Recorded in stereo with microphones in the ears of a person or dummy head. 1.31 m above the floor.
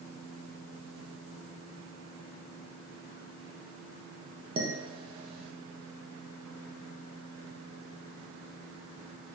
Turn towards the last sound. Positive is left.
turn(degrees=-30)  # may be behind; listen again after turning